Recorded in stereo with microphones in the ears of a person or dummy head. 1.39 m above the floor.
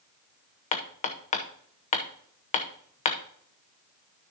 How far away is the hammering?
About 0.7 m.